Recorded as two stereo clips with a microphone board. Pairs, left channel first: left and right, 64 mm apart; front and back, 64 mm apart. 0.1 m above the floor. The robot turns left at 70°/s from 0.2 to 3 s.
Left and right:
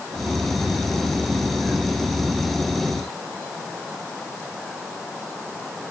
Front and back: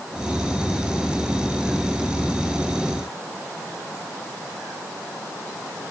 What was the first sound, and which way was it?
Only background noise.